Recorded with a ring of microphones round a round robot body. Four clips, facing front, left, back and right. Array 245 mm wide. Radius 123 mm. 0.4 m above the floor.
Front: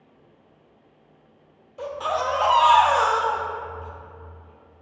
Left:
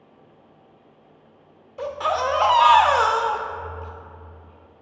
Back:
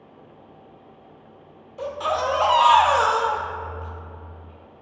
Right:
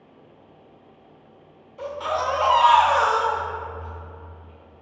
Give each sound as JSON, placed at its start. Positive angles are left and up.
{"t": 1.8, "sound": "a baby crying", "azimuth_deg": 100, "distance_m": 0.7}